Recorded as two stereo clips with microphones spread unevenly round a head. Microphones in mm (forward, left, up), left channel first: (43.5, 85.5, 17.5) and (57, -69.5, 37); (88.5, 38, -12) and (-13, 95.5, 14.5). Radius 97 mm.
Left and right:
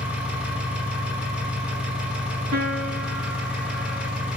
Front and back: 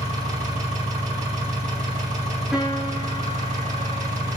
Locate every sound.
0.0 s an engine running: 170° right, 5.5 m
2.5 s a piano: 120° right, 7.5 m